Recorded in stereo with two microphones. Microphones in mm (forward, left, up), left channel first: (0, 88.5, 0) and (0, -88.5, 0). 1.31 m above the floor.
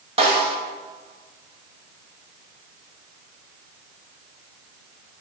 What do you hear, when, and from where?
0.2 s a snare drum: 35° right (ahead or behind), 1.6 m